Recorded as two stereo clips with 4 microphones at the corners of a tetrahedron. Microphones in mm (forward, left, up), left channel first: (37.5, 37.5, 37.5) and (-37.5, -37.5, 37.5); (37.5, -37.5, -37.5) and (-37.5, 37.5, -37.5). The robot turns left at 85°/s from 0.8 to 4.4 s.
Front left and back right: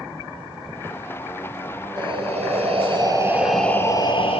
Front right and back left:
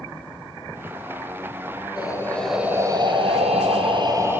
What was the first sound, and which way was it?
Breathing, 90° right.